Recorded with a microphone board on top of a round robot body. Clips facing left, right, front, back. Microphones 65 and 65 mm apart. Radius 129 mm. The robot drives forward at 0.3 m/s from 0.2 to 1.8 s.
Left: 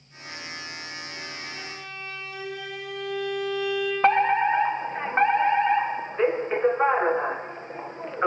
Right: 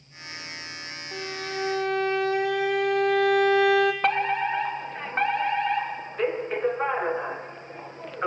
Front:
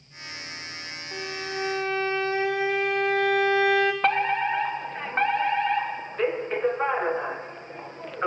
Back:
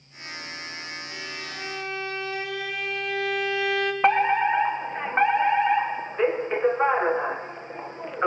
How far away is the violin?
About 3 m.